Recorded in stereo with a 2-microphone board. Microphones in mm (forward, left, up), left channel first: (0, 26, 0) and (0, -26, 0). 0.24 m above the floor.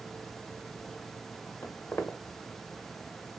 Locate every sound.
1.6 s footsteps: 40° left (ahead or behind), 1.2 m